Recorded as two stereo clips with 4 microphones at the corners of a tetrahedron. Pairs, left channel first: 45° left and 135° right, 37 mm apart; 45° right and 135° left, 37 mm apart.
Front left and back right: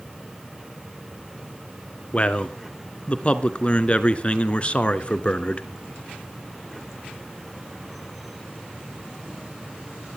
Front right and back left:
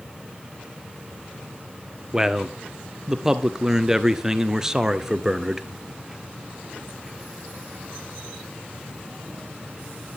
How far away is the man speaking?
About 1.3 m.